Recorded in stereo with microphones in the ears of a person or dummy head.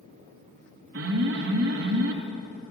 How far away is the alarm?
About 2 m.